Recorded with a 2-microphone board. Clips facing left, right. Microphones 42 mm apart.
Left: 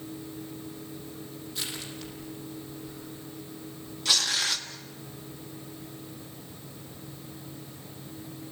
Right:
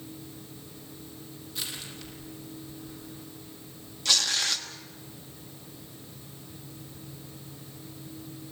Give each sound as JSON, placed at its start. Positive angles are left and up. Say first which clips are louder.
{"t": 1.6, "sound": "crushing", "louder": "left 1 dB", "side_deg": 0, "distance_m": 6.0}
{"t": 4.0, "sound": "tearing paper", "louder": "even", "side_deg": 5, "distance_m": 1.5}